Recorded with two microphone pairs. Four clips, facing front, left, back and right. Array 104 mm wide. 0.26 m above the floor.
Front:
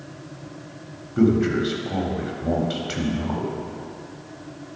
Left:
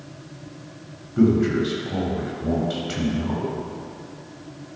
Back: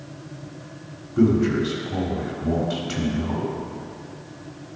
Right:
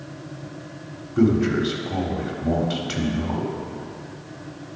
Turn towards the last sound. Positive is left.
turn(degrees=-30)